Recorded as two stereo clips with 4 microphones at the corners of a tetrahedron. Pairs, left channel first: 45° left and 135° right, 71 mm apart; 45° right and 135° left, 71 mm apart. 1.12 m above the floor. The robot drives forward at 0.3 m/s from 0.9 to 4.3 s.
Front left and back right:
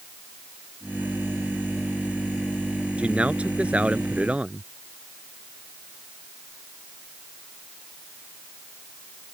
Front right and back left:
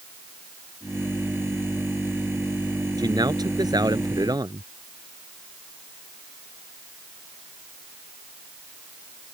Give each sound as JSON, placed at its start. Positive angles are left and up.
{"t": 3.0, "sound": "a man speaking", "azimuth_deg": 155}